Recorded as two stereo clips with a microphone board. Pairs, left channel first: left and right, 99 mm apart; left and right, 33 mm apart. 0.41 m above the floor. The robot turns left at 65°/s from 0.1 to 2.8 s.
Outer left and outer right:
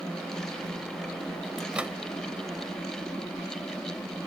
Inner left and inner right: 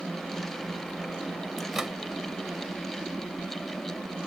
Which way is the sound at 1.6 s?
Centre (ahead or behind).